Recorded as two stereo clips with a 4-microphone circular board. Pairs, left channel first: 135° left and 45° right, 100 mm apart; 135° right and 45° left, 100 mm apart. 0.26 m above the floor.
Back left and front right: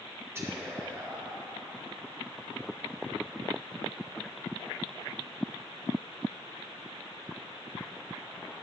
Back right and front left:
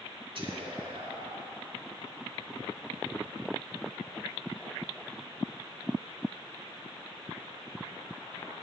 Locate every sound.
0.3 s whispering: 20° left, 3 m